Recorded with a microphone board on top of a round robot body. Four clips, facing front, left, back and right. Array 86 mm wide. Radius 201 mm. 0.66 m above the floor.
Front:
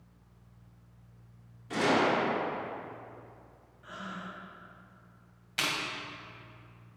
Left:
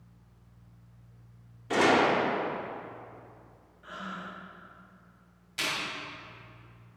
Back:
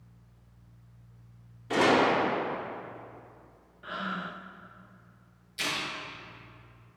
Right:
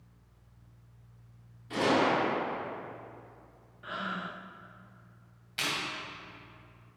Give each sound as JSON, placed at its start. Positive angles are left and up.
{"t": 1.7, "sound": "a gunshot", "azimuth_deg": 125, "distance_m": 1.4}
{"t": 3.8, "sound": "breathing", "azimuth_deg": -140, "distance_m": 0.8}
{"t": 5.6, "sound": "chewing", "azimuth_deg": -10, "distance_m": 2.0}